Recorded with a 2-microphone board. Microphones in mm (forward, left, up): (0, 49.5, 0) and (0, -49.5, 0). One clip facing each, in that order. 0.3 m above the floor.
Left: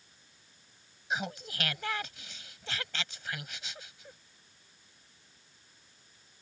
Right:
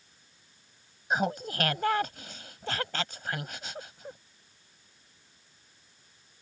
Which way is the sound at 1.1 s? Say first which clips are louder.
Right 7 dB; 45° right (ahead or behind).